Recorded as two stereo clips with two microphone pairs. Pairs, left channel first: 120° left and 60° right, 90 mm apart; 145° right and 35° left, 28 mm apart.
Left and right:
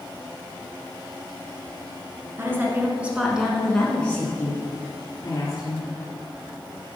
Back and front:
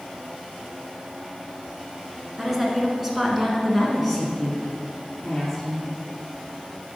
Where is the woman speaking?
30° right, 1.5 m; by 5.9 s 125° left, 1.9 m.